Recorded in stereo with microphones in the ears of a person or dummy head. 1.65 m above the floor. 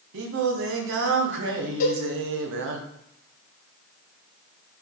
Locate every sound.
0.1 s singing: 75° right (ahead or behind), 1.2 m
1.8 s a cowbell: 45° left (ahead or behind), 2 m